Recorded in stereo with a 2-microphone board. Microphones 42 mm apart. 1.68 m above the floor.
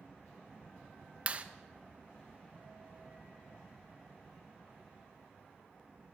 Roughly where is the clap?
Right.